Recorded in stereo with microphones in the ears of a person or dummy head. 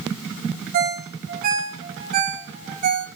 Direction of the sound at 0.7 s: 45° right (ahead or behind).